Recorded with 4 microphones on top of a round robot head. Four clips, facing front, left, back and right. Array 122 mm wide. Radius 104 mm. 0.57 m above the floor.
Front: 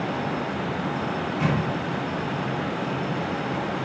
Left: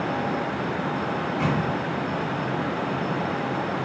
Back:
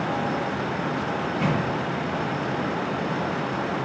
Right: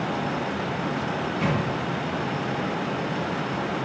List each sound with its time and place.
1.2 s a microwave: 45° left, 4.5 m